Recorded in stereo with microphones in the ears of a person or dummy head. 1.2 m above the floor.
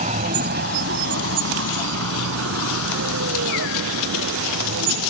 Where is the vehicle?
35° right (ahead or behind); by 5.1 s 65° right (ahead or behind).